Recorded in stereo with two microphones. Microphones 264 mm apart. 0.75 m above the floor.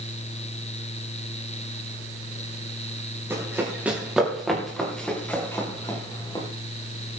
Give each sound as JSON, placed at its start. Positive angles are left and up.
{"t": 3.3, "sound": "running footsteps", "side_deg": -10, "distance_m": 5.5}